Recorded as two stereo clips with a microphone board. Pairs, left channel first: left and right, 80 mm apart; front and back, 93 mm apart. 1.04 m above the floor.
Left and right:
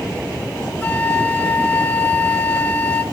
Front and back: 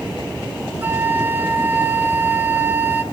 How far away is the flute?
About 0.8 m.